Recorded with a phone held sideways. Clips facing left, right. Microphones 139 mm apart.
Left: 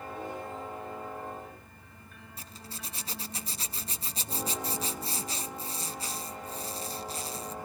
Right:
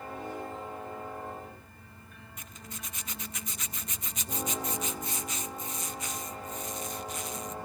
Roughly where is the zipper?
Left.